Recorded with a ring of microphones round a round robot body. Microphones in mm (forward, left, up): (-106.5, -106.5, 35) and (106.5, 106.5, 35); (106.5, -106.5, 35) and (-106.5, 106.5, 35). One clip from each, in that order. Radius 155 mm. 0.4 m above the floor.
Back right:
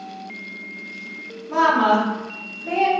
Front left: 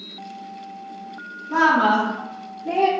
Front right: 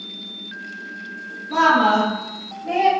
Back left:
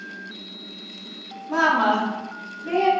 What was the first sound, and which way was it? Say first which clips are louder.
A woman speaking: even, front right 4 dB; 135° left.